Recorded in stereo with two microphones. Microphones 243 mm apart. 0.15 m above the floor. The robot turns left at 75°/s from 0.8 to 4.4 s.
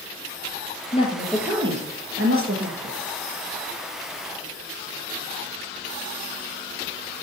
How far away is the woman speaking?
About 3 m.